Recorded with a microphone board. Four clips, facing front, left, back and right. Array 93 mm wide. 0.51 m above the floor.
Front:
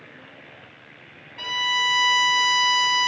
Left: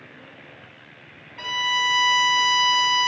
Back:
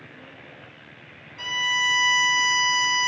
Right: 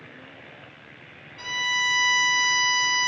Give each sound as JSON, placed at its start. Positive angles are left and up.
{"t": 1.4, "sound": "a violin", "azimuth_deg": 45, "distance_m": 1.4}